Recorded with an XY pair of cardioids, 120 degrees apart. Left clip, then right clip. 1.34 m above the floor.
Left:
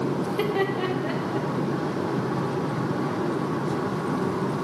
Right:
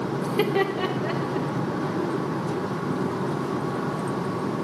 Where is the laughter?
35° right, 0.7 m; by 1.5 s 10° right, 2 m.